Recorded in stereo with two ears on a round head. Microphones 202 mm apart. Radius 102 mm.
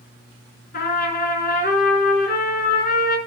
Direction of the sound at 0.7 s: 40° left (ahead or behind).